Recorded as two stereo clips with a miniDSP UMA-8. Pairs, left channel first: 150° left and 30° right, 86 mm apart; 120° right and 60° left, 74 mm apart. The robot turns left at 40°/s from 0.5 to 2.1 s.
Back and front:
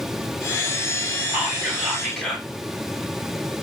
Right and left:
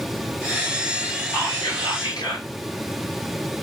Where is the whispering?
90° right, 2.5 m; by 2.5 s 125° right, 2.5 m.